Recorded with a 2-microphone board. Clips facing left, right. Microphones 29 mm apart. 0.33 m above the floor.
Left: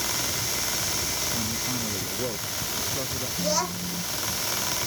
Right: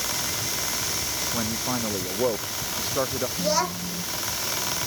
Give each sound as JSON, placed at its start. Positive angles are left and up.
{"t": 1.3, "sound": "a man speaking", "side_deg": -40}
{"t": 3.4, "sound": "a child speaking", "side_deg": -10}